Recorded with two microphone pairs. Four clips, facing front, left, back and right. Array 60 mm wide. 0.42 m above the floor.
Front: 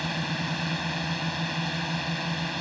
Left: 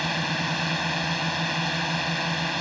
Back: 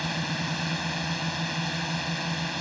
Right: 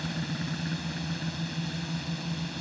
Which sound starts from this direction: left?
A drone, at 0.0 s.